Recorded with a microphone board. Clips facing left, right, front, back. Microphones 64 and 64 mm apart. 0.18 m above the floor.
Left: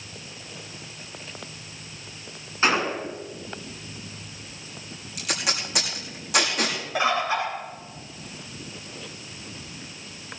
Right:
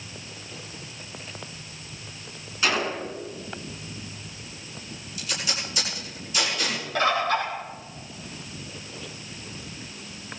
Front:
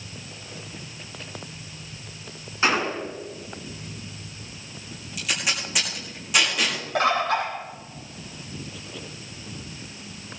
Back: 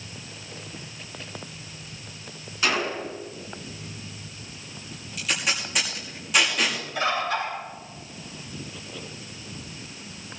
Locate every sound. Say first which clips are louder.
2.6 s a gunshot: left 3 dB, front 2 dB; 45° left, 1.9 m
5.2 s tape being pulled: left 3 dB, even; 90° left, 6.5 m
7.0 s a bird: right 1 dB, front 4 dB; 15° left, 4.5 m